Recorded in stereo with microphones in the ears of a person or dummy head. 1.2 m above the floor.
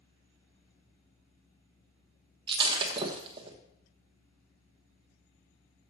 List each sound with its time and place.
2.5 s breaking glass: 35° right (ahead or behind), 0.9 m